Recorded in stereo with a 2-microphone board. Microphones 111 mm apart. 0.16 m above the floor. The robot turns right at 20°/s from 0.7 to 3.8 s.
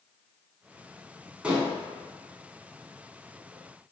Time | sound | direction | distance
1.4 | dishes clattering | 10° right (ahead or behind) | 0.7 m